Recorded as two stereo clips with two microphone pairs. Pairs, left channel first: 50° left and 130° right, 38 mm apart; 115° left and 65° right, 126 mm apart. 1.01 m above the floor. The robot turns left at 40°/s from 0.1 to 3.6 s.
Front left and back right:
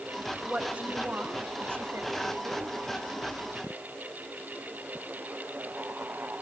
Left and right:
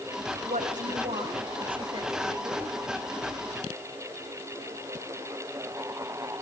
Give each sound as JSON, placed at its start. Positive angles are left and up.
{"t": 0.5, "sound": "a woman speaking", "azimuth_deg": -65, "distance_m": 4.5}